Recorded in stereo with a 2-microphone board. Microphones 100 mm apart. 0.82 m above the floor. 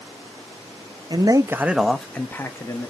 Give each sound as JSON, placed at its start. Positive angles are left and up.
{"t": 1.1, "sound": "a man speaking", "side_deg": -45, "distance_m": 0.7}